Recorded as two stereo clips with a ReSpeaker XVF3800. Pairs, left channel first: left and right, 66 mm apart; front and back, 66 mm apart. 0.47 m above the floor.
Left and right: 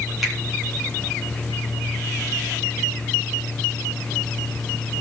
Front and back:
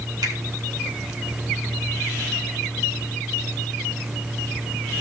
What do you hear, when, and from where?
0.2 s a finger snap: 175° right, 4 m